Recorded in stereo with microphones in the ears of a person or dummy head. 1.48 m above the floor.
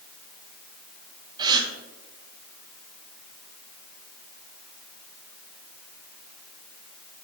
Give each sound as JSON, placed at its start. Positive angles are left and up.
{"t": 1.4, "sound": "a gasp", "side_deg": -25, "distance_m": 1.8}